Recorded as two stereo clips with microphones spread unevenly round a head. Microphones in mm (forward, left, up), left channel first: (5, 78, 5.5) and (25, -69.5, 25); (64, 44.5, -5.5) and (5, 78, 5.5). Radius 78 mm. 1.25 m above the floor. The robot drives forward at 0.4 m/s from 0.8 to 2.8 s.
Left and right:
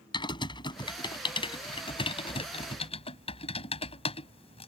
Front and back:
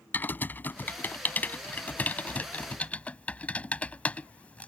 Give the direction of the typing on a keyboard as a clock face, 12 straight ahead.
11 o'clock.